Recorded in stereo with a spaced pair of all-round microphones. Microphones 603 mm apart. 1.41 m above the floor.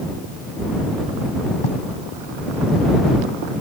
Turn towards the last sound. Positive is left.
turn(degrees=55)  # may be behind; listen again after turning